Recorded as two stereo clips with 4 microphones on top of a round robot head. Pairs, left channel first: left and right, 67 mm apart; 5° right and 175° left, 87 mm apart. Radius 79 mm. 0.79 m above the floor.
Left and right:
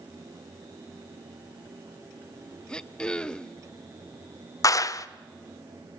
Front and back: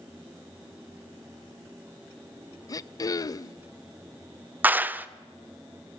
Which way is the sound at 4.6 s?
110° left.